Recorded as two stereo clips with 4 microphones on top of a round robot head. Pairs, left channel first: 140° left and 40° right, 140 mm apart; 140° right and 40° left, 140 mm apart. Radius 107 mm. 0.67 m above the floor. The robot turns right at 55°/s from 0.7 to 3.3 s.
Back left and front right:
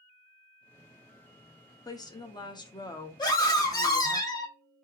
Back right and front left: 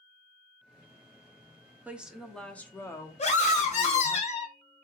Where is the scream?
165° right, 1.3 m; by 4.5 s 160° right, 1.3 m.